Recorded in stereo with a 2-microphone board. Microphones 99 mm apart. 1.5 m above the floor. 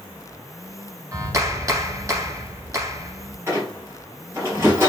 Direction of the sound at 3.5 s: 25° right (ahead or behind).